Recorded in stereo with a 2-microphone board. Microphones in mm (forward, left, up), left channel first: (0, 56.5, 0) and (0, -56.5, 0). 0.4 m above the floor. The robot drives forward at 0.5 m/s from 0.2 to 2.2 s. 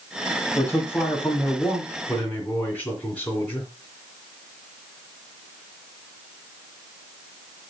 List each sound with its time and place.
0.6 s a man speaking: 15° left (ahead or behind), 2 m; by 3.7 s 10° left (ahead or behind), 3 m